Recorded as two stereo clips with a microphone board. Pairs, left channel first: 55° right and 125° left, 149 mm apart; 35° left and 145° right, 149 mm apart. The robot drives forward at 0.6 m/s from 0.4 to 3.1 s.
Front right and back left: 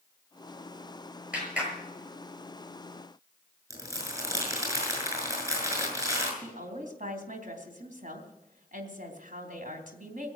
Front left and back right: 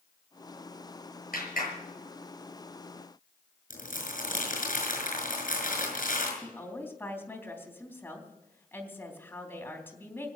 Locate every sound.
1.3 s a clap: 40° left, 7 m; by 1.7 s 45° left, 7 m
3.7 s crumpling: 55° left, 6.5 m
6.4 s a woman speaking: 110° left, 3.5 m